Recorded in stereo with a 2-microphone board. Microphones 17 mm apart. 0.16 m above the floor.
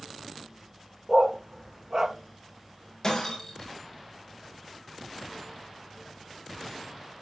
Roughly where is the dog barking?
Right.